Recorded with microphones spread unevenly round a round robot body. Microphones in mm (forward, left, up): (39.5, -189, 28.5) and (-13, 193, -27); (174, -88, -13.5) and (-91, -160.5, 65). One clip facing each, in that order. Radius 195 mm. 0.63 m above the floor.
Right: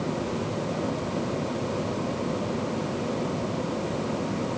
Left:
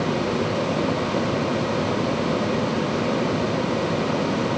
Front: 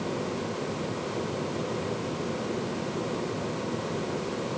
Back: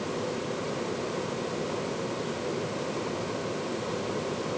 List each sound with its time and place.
Only background noise.